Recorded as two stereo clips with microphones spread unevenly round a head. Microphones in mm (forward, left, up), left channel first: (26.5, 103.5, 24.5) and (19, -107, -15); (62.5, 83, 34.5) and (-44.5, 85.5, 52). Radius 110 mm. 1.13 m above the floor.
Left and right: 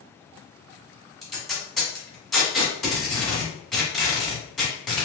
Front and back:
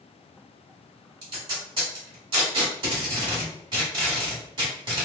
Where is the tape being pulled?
170° left, 1.5 m.